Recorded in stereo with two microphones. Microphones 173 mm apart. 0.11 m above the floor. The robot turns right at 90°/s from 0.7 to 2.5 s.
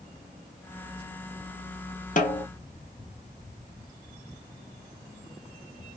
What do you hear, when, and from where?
2.2 s a snare drum: 50° left (ahead or behind), 0.5 m; by 2.5 s 65° left (ahead or behind), 0.5 m